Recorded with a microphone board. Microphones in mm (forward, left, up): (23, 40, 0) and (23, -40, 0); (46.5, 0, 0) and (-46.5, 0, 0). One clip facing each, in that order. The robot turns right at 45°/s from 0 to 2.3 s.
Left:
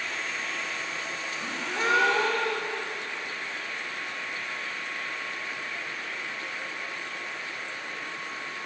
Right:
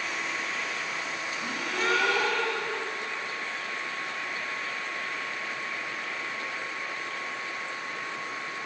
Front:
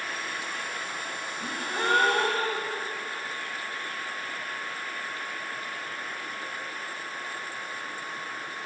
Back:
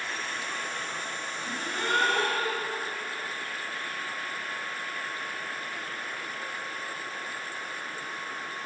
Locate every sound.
1.4 s a gasp: 10° left, 1.0 m; by 2.9 s 50° left, 1.0 m